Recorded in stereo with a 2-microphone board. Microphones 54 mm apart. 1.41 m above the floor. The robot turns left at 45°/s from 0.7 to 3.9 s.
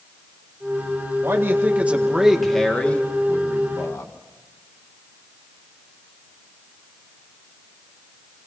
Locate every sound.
1.2 s a man speaking: 125° right, 1.8 m; by 4.1 s 115° left, 1.8 m